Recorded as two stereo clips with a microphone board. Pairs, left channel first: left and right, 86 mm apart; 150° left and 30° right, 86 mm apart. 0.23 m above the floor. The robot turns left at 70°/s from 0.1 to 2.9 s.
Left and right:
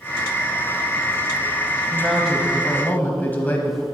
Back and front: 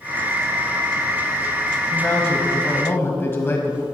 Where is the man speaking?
160° right, 1.1 m; by 3.8 s 130° left, 1.1 m.